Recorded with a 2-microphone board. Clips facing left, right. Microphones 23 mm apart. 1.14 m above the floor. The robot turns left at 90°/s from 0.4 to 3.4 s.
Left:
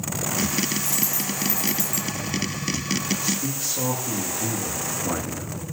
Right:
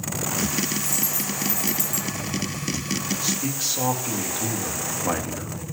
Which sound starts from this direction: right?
A man speaking, at 3.2 s.